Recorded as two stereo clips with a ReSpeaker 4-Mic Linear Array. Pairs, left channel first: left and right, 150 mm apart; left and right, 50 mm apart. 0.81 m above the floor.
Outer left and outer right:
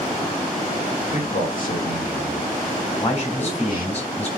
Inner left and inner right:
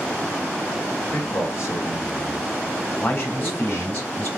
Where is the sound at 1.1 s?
70° left (ahead or behind), 1.6 m.